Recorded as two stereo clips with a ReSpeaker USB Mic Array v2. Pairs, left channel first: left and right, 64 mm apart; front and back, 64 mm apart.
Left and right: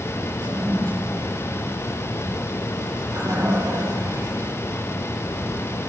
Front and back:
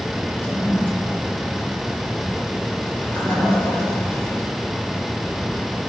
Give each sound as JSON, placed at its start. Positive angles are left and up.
{"t": 0.4, "sound": "a toilet flushing", "azimuth_deg": -60, "distance_m": 5.5}